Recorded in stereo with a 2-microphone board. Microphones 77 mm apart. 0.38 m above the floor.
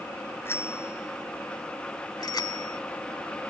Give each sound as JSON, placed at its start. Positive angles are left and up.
{"t": 0.5, "sound": "a bicycle bell", "side_deg": 30}